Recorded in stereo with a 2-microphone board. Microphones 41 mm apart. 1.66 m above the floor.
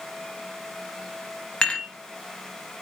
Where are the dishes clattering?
15° left (ahead or behind), 0.8 m.